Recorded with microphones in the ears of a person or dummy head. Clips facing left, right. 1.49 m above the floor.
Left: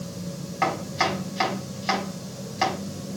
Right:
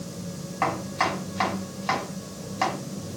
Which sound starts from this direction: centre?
Chopping, at 0.6 s.